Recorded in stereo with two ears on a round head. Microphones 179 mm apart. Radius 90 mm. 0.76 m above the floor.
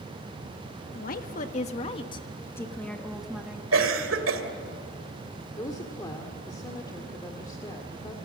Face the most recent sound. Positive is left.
turn(degrees=20)  # may be behind; listen again after turning